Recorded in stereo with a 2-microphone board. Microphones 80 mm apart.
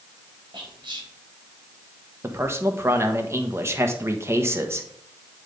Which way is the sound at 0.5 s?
75° right (ahead or behind).